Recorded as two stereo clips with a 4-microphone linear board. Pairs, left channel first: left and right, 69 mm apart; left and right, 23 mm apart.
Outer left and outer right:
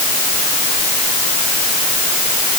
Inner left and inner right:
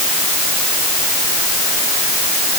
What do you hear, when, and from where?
Only background noise.